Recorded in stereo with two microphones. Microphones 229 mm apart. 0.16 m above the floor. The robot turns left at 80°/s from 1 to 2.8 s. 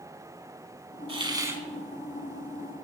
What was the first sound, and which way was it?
A hiss, 25° right (ahead or behind).